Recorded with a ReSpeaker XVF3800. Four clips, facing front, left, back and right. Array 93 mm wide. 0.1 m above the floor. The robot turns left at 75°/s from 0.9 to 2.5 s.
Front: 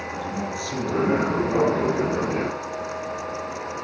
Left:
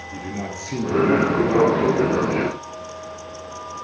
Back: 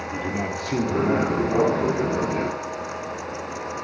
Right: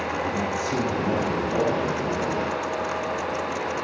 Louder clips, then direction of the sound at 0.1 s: Right 1 dB, back 3 dB; 165° left.